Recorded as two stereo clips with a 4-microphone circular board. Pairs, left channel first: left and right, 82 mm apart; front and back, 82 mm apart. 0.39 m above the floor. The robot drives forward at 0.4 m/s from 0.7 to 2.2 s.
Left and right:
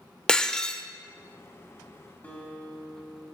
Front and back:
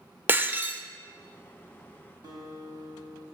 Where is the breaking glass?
155° left, 0.5 m; by 0.8 s 160° left, 0.6 m.